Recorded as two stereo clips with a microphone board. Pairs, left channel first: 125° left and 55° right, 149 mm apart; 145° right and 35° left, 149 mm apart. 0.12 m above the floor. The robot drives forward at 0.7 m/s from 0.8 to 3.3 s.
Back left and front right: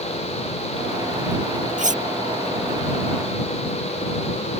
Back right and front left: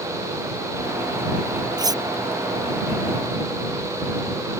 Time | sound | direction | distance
1.8 | cutlery clinking | 30° right | ?